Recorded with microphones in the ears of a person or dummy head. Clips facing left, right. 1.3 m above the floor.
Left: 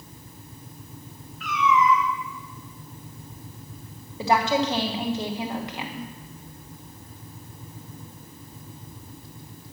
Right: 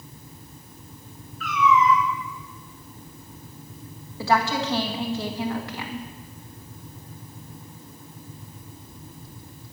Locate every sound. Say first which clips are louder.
1.4 s a cat meowing: right 2 dB; 20° left (ahead or behind), 4 m
4.2 s a woman speaking: left 1 dB; 15° left (ahead or behind), 1.1 m